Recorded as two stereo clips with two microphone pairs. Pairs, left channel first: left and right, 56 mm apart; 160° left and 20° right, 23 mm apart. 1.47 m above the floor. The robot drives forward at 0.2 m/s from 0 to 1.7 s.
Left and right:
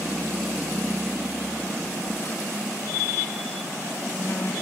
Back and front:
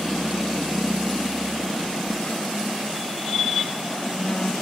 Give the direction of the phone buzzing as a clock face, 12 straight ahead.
7 o'clock.